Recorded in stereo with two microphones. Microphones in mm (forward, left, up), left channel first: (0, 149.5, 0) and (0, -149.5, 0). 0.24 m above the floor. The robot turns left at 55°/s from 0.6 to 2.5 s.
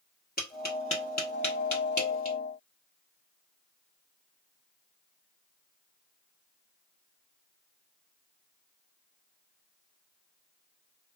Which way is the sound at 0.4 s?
30° left (ahead or behind).